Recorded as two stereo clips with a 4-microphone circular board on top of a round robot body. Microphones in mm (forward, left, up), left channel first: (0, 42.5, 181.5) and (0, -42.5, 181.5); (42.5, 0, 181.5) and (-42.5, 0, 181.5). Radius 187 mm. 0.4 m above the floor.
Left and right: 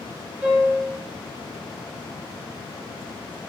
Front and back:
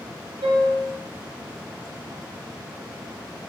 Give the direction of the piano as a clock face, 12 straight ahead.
6 o'clock.